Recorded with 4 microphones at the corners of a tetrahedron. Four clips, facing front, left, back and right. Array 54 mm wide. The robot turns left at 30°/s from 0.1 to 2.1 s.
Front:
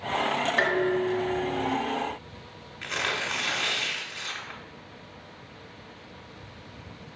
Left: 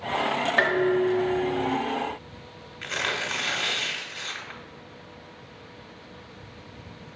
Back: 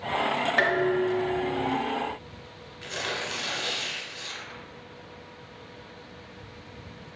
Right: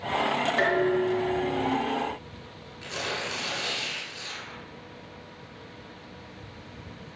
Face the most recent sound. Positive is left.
turn(degrees=50)